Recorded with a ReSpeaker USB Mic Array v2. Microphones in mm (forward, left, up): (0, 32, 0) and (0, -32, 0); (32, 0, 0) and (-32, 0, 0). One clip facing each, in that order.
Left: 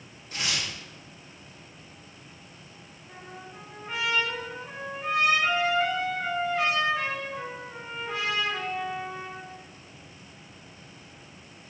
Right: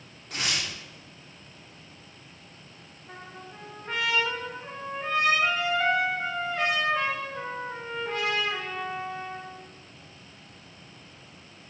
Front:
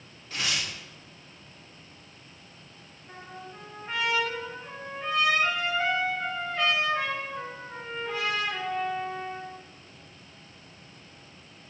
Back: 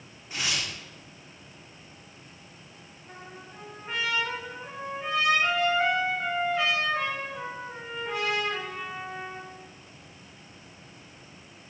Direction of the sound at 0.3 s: 105° right.